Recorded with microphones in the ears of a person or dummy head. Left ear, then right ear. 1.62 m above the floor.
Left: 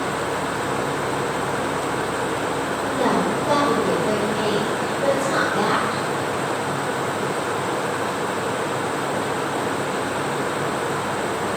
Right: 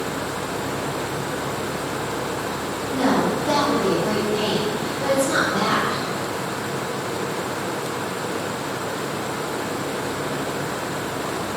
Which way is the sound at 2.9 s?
Centre (ahead or behind).